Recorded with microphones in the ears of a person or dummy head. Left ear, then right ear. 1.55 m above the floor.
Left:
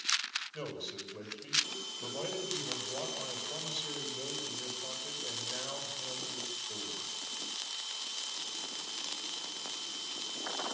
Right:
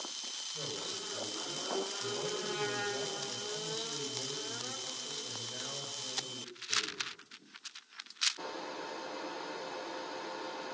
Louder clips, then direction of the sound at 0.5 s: Right 2 dB; 75° left (ahead or behind).